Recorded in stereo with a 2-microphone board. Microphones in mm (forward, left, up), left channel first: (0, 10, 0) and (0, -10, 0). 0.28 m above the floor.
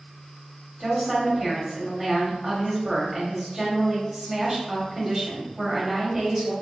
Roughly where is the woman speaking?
Centre.